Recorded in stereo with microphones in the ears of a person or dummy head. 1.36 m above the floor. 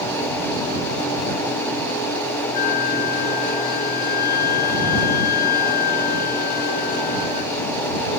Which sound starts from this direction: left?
A flute, at 2.5 s.